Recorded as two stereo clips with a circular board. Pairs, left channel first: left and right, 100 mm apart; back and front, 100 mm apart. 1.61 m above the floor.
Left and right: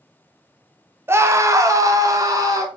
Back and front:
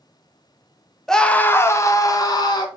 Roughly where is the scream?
Right.